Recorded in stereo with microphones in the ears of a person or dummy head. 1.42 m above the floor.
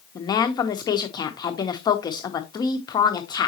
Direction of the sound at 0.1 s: 20° left (ahead or behind).